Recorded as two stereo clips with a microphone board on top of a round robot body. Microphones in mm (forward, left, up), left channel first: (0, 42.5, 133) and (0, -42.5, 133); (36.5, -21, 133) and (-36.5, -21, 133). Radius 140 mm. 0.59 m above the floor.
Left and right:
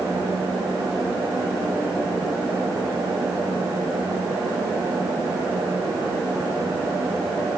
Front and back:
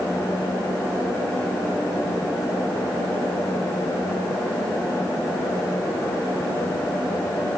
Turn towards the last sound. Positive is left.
No sound to turn to.